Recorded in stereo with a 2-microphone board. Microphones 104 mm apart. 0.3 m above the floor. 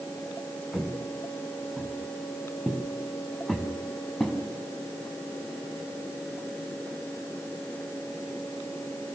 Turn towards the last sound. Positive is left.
turn(degrees=5)  # may be behind; listen again after turning